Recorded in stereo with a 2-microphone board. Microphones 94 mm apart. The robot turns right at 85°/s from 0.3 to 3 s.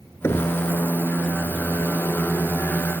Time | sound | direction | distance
0.2 | knocking | 30° left (ahead or behind) | ?